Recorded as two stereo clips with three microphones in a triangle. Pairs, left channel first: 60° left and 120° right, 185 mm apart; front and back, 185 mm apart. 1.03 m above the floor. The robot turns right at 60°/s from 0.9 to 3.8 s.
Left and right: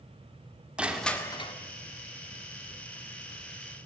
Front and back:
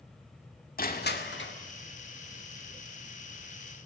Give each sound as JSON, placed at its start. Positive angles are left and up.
{"t": 0.8, "sound": "crushing", "azimuth_deg": -35, "distance_m": 1.9}